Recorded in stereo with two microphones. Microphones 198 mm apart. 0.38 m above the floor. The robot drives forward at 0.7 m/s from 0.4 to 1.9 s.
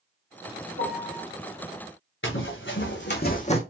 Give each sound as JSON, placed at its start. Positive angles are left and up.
{"t": 0.8, "sound": "a piano", "side_deg": 70, "distance_m": 3.0}
{"t": 2.2, "sound": "running footsteps", "side_deg": 80, "distance_m": 2.0}